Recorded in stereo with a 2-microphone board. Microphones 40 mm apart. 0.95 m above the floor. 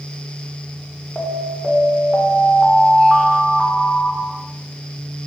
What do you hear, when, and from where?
1.1 s an alarm: 30° left (ahead or behind), 2.5 m